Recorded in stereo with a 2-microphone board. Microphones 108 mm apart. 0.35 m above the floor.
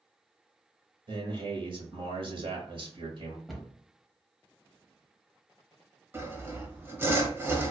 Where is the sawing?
25° right (ahead or behind), 0.8 m.